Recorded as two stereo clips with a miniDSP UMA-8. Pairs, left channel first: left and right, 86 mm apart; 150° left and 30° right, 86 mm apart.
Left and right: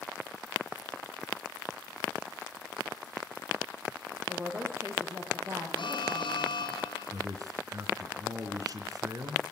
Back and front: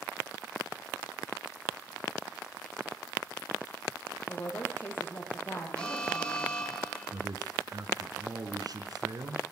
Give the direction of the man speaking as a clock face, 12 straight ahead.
2 o'clock.